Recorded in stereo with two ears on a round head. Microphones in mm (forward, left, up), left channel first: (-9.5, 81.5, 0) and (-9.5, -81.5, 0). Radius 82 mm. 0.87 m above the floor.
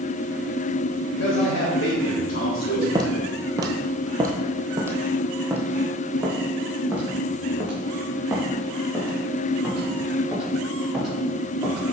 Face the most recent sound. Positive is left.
turn(degrees=0)  # may be behind; listen again after turning